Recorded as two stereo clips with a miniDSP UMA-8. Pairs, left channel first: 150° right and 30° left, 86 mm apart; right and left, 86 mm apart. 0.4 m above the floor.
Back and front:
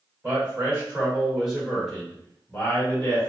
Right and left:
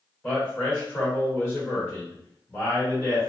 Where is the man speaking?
25° right, 1.8 m; by 3.3 s 130° right, 1.5 m.